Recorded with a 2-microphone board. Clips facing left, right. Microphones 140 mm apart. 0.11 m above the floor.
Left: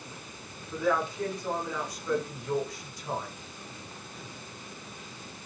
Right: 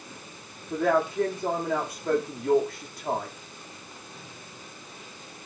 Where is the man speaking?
55° right (ahead or behind), 9 m.